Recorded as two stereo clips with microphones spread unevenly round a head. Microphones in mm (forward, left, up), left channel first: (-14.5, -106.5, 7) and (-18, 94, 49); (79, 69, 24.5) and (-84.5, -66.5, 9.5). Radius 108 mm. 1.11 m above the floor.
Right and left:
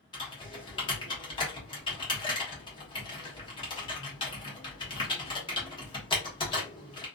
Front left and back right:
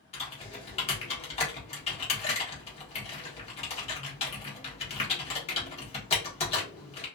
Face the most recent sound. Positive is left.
turn(degrees=-25)